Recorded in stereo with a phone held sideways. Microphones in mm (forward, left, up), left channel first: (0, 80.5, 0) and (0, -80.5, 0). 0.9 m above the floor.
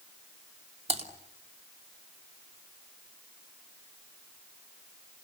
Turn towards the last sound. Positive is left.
turn(degrees=-40)  # may be behind; listen again after turning